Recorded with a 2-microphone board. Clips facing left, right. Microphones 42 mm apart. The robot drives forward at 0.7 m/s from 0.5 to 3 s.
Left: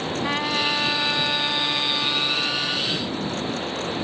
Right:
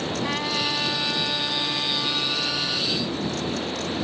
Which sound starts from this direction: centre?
A trumpet, at 0.2 s.